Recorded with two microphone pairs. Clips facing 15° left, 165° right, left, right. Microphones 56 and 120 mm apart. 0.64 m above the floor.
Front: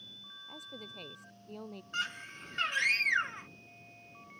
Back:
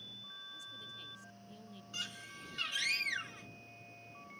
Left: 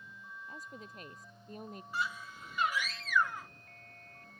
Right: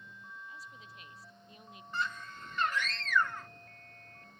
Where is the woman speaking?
45° left.